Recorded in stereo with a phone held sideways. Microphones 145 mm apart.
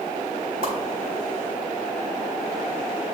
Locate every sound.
0.6 s a whoosh: 80° left, 3 m